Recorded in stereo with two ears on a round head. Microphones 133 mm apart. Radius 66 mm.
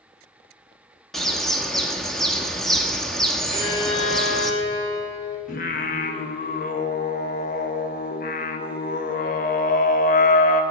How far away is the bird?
About 1.1 m.